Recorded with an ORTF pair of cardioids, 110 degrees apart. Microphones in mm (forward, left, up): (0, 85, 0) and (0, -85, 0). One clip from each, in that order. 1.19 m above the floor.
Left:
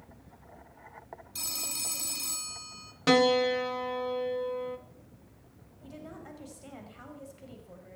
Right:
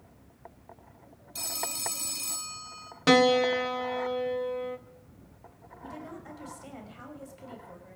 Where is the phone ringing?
Straight ahead, 1.7 m.